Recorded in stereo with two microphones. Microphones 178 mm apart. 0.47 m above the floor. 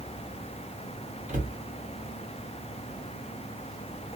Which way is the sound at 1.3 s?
45° right (ahead or behind).